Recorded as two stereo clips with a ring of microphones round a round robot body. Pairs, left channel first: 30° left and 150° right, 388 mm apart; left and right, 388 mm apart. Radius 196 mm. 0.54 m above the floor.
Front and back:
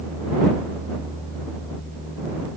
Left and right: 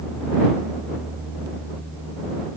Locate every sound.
Only background noise.